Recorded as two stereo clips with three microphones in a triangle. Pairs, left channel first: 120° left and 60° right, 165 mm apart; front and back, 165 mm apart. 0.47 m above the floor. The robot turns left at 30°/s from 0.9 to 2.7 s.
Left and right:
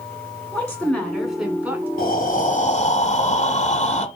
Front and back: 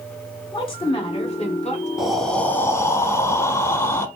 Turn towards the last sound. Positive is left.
turn(degrees=75)